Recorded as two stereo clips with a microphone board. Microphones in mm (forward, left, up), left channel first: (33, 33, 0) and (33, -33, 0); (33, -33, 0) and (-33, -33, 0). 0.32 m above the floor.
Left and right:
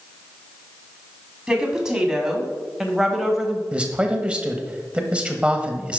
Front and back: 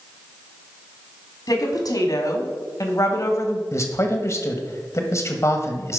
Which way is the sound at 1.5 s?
10° right.